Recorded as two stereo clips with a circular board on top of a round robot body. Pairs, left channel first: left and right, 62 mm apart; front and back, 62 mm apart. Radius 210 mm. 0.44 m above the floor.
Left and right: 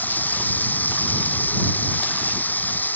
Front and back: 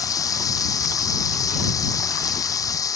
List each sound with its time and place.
0.0 s running water: 25° left